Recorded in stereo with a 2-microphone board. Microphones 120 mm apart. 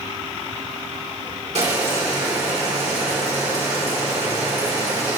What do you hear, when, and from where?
1.6 s boiling: 65° right (ahead or behind), 1.9 m